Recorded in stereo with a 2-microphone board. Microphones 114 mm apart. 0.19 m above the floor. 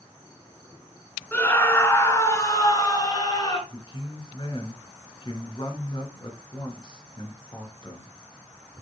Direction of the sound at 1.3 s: 15° left (ahead or behind).